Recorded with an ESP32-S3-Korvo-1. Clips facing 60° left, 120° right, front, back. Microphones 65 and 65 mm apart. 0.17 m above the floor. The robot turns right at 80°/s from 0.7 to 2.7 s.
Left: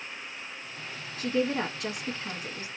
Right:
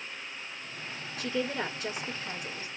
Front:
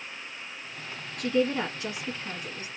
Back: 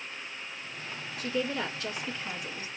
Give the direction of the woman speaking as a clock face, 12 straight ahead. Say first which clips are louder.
Left 4 dB, front 6 dB; 12 o'clock.